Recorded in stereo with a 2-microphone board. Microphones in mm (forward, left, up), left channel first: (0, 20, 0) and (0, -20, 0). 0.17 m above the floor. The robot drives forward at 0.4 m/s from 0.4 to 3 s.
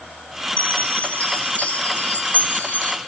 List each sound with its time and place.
0.6 s a chime: 30° left (ahead or behind), 1.8 m; by 3.0 s 40° left (ahead or behind), 1.4 m